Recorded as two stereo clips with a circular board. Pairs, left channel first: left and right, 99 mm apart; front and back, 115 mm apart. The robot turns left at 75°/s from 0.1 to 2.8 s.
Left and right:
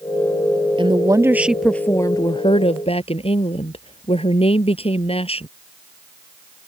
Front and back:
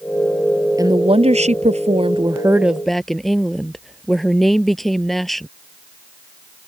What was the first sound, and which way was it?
A woman speaking, 120° right.